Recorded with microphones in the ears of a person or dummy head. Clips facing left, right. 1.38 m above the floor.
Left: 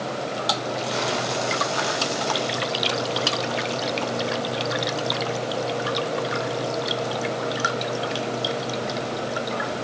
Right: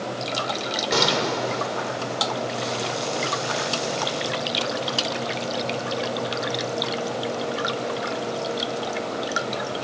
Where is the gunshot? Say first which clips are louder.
Right 6 dB; 80° right, 3 m.